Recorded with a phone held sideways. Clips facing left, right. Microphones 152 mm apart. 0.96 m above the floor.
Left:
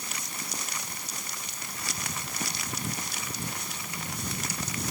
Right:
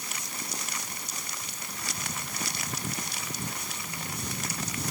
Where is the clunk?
I don't hear a clunk.